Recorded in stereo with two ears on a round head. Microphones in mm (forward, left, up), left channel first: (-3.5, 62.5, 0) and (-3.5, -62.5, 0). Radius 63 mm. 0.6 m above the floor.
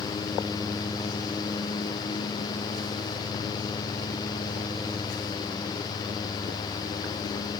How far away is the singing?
No singing in this recording.